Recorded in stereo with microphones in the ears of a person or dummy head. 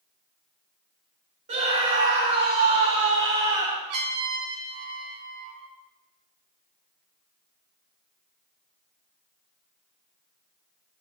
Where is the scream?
40° right (ahead or behind), 4 m; by 3.8 s 25° right (ahead or behind), 4.5 m.